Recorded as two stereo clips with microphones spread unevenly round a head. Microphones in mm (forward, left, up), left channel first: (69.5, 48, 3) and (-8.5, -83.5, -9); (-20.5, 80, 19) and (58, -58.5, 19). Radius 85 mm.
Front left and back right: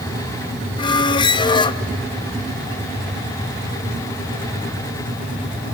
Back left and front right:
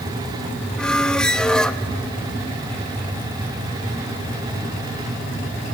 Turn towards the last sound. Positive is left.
turn(degrees=40)